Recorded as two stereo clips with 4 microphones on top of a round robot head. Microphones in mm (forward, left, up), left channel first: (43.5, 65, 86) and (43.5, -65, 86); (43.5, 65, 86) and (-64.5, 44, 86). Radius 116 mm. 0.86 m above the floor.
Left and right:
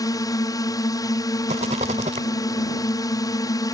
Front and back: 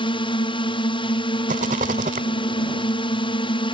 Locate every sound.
0.0 s a drone: 35° left
1.5 s a rattle: 140° right